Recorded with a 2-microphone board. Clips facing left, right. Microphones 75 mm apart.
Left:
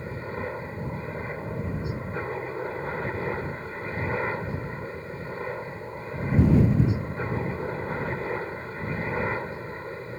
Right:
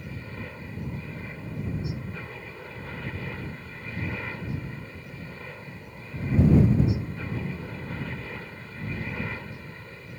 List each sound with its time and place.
0.0 s a helicopter: 35° left (ahead or behind)